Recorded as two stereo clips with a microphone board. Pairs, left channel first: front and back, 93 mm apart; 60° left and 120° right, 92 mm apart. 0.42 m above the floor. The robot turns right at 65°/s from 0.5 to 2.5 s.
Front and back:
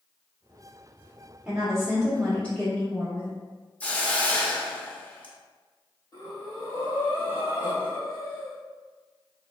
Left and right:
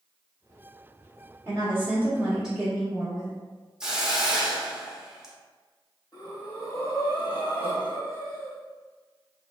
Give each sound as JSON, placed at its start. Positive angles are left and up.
{"t": 1.4, "sound": "a woman speaking", "azimuth_deg": -115, "distance_m": 1.1}
{"t": 3.8, "sound": "a hiss", "azimuth_deg": -50, "distance_m": 0.7}
{"t": 6.1, "sound": "breathing", "azimuth_deg": 20, "distance_m": 1.5}